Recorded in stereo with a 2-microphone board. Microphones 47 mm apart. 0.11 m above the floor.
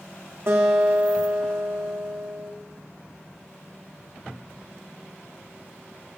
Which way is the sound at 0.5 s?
65° right (ahead or behind).